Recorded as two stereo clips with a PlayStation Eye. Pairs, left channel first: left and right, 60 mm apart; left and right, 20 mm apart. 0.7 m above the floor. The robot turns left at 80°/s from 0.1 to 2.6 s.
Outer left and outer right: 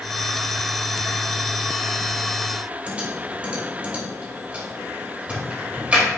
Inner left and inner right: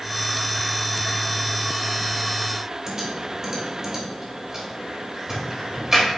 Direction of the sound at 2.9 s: 20° right (ahead or behind).